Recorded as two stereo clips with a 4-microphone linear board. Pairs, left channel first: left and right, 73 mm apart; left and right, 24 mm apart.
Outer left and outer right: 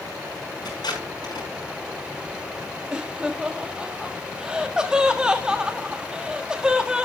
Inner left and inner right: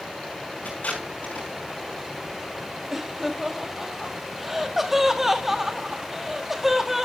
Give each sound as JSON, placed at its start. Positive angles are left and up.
{"t": 0.7, "sound": "tape being pulled", "side_deg": 75, "distance_m": 6.0}
{"t": 2.9, "sound": "laughter", "side_deg": -10, "distance_m": 1.5}